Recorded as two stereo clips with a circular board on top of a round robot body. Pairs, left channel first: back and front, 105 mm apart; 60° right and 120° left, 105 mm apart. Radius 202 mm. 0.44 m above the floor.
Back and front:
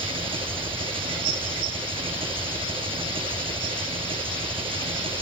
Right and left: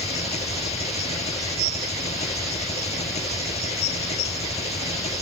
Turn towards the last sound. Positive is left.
turn(degrees=-40)